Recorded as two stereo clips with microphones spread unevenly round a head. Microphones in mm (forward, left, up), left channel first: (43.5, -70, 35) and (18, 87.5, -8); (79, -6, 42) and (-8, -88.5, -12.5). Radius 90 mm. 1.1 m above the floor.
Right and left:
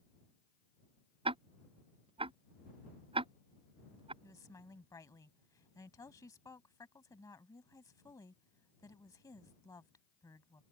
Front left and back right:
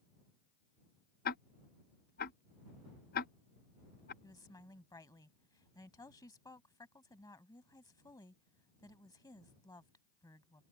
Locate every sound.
1.2 s ticking: 50° left
4.2 s a woman speaking: 10° right